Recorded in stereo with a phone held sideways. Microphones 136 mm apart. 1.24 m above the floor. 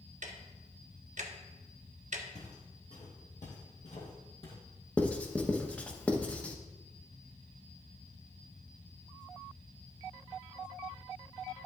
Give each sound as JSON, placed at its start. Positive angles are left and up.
{"t": 0.2, "sound": "ticking", "side_deg": -60, "distance_m": 0.9}
{"t": 2.4, "sound": "footsteps", "side_deg": 60, "distance_m": 3.0}
{"t": 5.0, "sound": "writing", "side_deg": 10, "distance_m": 0.8}